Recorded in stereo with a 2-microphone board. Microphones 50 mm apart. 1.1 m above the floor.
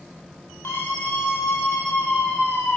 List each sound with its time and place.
0.6 s a scream: 45° left (ahead or behind), 9 m; by 2.8 s 35° left (ahead or behind), 9 m